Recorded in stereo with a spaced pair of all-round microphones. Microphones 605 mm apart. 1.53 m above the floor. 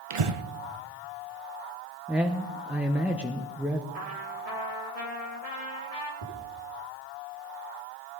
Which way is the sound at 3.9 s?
70° right (ahead or behind).